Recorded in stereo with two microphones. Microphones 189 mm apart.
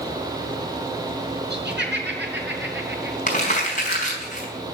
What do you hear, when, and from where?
1.5 s laughter: 65° right (ahead or behind), 4.5 m; by 3.2 s 75° right (ahead or behind), 6.5 m
3.3 s crumpling: 40° left (ahead or behind), 4 m